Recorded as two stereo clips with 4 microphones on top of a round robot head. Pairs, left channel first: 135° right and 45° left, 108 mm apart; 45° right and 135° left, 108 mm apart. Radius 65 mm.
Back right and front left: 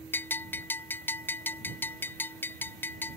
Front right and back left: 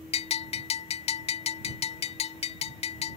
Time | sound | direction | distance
0.1 | a bell | 65° right | ?